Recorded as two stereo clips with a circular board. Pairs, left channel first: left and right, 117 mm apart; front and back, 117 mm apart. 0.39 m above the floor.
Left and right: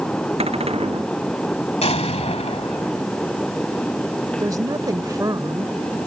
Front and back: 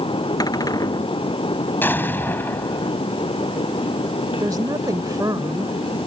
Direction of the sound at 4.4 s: 135° right.